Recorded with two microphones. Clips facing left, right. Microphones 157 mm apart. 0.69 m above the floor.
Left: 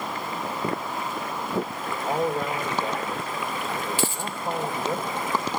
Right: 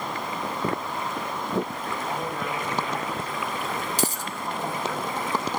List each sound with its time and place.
2.0 s a man speaking: 50° left (ahead or behind), 2.5 m
4.0 s a dropped coin: 40° right (ahead or behind), 0.7 m